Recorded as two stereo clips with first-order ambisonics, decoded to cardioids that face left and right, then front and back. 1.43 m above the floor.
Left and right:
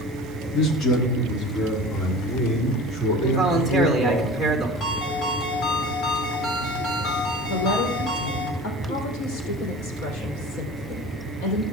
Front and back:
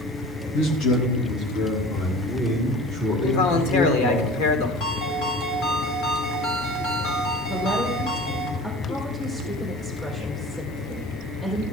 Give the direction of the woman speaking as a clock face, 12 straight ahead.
9 o'clock.